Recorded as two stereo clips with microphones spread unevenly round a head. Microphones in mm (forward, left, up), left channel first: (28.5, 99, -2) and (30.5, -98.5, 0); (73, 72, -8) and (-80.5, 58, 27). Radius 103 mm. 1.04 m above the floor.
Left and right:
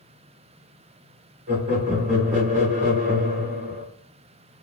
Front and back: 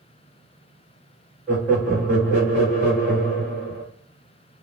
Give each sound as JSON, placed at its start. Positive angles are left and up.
{"t": 1.5, "sound": "laughter", "azimuth_deg": -65, "distance_m": 1.1}